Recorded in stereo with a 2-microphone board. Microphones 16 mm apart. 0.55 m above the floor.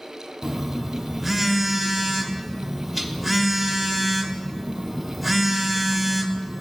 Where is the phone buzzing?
Centre (ahead or behind), 1.1 m.